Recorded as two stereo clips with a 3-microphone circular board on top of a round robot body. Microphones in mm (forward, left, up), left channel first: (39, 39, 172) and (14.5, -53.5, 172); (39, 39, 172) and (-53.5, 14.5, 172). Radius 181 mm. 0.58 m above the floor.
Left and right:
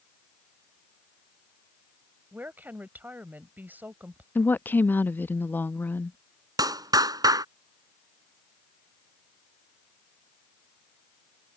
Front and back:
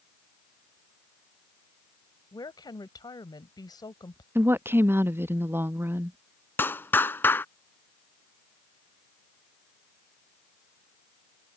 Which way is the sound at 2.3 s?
35° right.